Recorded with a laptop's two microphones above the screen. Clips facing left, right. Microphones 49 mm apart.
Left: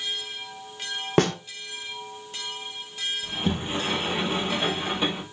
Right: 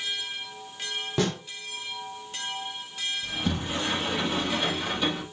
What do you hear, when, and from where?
1.2 s a snare drum: 50° left (ahead or behind), 1.7 m
3.2 s a sliding door: 30° left (ahead or behind), 5 m